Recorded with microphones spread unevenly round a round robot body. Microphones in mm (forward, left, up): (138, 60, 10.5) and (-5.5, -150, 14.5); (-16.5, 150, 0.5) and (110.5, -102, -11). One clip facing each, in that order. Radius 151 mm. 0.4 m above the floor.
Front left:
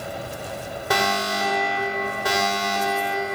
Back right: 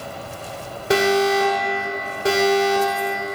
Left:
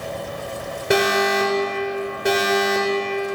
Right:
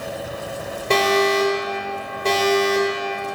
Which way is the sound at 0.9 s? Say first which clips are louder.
Back right 10 dB, right 1 dB; 170° right.